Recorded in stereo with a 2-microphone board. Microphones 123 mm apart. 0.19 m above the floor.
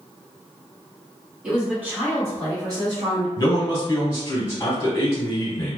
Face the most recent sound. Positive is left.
turn(degrees=25)  # may be behind; listen again after turning